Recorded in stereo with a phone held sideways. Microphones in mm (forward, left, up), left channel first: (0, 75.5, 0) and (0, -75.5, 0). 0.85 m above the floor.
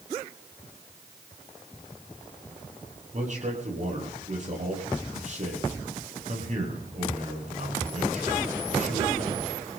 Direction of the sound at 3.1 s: 55° right (ahead or behind).